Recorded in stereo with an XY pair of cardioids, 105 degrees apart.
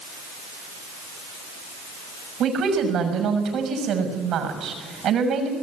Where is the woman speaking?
65° right, 6 m.